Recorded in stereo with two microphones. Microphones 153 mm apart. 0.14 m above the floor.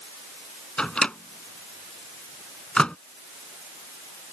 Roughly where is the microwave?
Centre.